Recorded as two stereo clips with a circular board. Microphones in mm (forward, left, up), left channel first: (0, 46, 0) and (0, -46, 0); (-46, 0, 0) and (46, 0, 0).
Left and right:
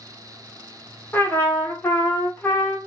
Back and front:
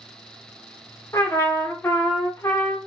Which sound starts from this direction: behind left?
A trumpet, at 1.1 s.